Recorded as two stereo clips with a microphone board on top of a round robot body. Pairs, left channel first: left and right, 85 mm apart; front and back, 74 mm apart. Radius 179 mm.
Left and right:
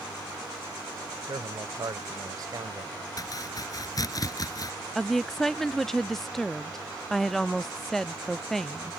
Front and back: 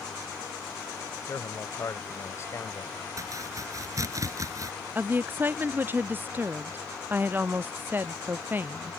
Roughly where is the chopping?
Behind left.